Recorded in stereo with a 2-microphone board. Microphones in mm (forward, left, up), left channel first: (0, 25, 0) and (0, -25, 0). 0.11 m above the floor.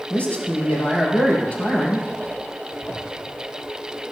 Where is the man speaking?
30° left (ahead or behind), 4.5 m.